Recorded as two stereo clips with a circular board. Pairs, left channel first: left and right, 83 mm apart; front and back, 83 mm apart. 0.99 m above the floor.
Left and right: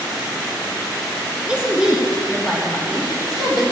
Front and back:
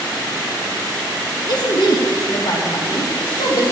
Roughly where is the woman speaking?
Ahead.